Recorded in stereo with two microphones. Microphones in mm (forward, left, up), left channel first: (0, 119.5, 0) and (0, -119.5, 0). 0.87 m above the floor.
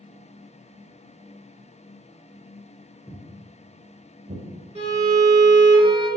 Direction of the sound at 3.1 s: 5° left (ahead or behind).